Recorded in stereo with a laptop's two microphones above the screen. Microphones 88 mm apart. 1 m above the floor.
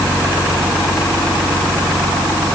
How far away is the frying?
I don't hear frying.